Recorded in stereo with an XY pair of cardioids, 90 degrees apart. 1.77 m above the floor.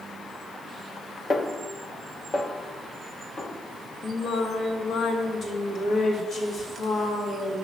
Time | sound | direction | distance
1.3 | a snare drum | 35° left | 1.5 m
4.0 | singing | 60° left | 3 m